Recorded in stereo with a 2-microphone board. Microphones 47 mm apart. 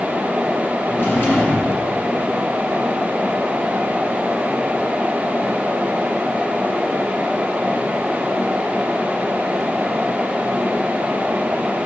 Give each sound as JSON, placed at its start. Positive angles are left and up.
{"t": 0.8, "sound": "a drawer", "side_deg": 55, "distance_m": 3.5}